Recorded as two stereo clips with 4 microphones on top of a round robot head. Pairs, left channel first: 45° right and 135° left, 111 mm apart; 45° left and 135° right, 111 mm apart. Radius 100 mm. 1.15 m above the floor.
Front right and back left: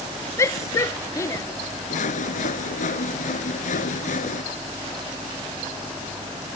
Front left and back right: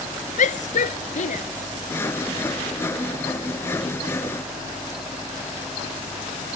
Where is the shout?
20° left.